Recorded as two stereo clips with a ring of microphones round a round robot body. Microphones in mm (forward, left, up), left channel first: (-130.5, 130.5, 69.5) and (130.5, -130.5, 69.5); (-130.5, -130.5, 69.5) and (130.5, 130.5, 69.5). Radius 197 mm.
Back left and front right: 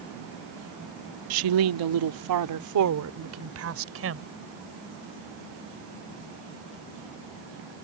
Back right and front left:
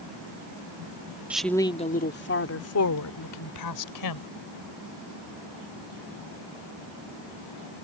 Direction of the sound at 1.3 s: 40° right.